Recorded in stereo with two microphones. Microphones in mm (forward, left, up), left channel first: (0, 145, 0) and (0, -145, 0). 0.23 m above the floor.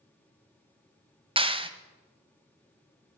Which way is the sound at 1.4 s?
20° right (ahead or behind).